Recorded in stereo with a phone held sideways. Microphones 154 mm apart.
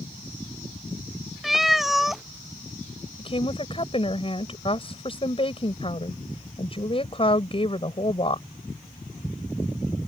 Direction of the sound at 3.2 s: 35° left (ahead or behind).